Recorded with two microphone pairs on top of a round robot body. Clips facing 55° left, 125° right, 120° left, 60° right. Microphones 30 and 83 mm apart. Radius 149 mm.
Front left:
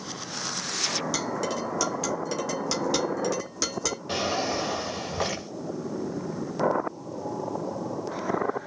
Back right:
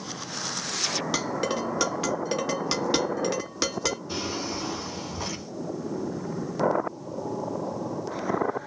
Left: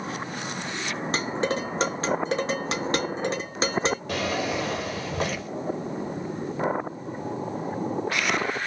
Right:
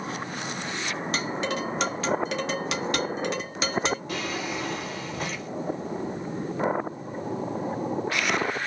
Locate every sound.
1.1 s dishes clattering: 175° left, 1.7 m
4.1 s a drawer: 95° left, 1.1 m